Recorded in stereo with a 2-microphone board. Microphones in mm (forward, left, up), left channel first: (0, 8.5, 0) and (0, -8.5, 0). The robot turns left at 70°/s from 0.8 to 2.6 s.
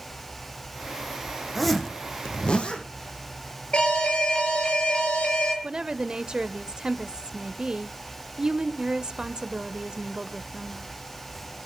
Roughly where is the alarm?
Left.